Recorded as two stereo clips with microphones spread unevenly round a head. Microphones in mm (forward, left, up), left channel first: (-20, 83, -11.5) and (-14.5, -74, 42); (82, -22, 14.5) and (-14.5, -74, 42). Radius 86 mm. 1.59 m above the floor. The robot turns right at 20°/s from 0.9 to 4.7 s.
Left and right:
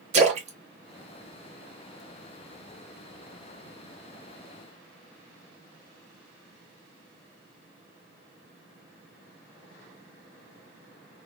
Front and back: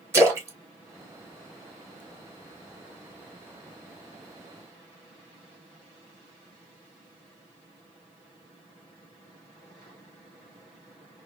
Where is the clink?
No clink in this recording.